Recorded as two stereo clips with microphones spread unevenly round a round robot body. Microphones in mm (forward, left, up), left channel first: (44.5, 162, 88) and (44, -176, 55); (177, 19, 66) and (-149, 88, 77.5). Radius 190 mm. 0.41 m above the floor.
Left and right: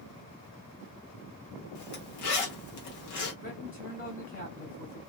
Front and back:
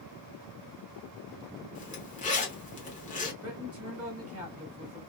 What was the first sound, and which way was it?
A zipper, 55° left.